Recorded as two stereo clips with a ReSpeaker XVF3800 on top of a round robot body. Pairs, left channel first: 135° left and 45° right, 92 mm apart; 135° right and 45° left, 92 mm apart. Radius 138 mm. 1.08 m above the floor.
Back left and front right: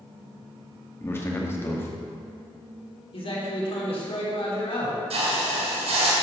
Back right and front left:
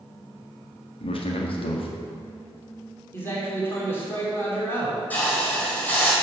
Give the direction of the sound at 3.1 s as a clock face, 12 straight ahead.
7 o'clock.